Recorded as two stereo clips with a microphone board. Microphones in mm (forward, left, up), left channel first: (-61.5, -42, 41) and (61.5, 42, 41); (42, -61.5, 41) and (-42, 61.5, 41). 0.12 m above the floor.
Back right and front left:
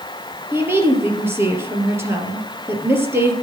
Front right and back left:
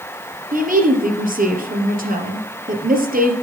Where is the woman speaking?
110° left, 3 m.